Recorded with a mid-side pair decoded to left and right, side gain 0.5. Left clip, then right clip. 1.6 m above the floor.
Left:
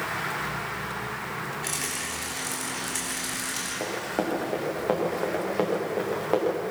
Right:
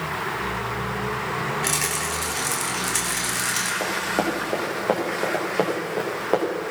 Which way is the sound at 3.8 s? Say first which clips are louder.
Right 5 dB; 20° right.